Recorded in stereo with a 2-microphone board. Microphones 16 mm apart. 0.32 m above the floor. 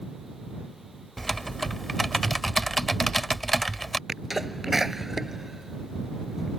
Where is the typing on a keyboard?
10° left (ahead or behind).